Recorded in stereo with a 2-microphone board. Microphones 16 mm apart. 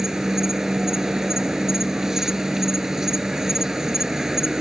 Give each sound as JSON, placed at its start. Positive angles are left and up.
{"t": 0.0, "sound": "an insect", "side_deg": -35}